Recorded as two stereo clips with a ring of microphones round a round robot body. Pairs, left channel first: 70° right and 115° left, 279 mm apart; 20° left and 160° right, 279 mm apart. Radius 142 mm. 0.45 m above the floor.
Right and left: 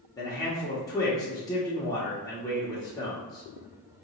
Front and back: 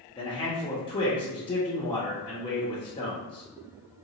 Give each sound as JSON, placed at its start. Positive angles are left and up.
{"t": 0.2, "sound": "a man speaking", "azimuth_deg": -15, "distance_m": 0.8}